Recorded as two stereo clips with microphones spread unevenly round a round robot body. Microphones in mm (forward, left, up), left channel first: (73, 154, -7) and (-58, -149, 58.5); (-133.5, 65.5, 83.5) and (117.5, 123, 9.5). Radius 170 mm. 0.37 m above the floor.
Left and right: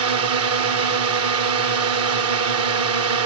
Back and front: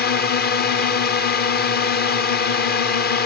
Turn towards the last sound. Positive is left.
turn(degrees=-120)